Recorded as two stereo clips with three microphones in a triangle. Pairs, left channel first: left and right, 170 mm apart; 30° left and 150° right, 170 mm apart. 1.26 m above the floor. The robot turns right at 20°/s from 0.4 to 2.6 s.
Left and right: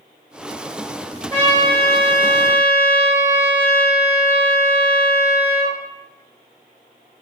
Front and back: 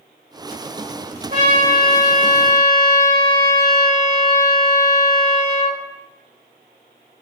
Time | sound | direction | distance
1.3 | a trumpet | 170° left | 1.7 m